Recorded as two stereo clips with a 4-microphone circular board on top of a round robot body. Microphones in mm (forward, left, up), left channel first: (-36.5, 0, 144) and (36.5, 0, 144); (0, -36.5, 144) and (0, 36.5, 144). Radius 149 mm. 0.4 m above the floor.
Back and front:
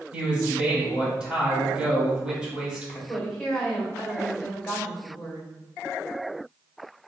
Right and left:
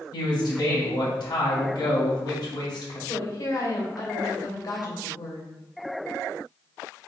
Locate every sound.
0.1 s a man speaking: 80° right, 2.5 m
3.1 s a woman speaking: 95° right, 3 m